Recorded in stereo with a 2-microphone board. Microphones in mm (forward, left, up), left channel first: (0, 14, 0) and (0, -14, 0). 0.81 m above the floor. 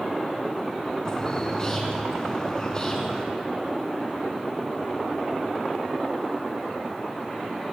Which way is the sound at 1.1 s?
20° left (ahead or behind).